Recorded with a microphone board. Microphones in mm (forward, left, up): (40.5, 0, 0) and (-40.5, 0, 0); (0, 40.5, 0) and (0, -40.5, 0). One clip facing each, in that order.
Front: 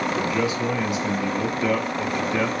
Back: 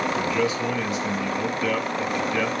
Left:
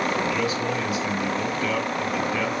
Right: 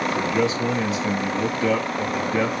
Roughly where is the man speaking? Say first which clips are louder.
Even, right 3 dB; ahead right.